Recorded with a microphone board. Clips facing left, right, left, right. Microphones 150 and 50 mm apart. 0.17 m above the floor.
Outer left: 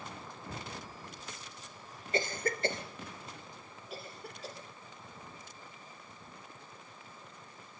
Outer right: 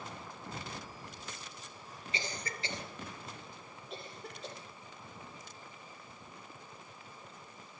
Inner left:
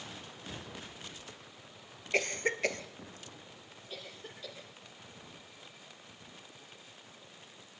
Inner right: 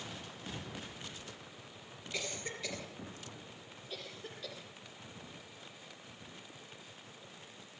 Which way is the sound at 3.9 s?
5° left (ahead or behind).